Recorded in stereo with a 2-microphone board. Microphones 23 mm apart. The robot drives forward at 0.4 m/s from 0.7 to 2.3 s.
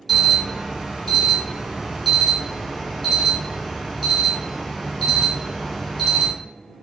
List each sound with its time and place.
0.1 s an alarm: 5° left (ahead or behind), 2.5 m